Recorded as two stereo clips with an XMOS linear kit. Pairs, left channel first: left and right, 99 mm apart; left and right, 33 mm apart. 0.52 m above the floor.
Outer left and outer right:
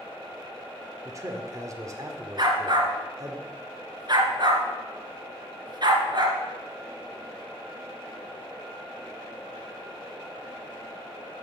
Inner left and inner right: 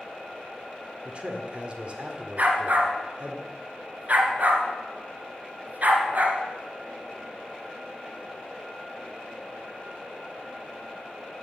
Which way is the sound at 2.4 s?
50° right (ahead or behind).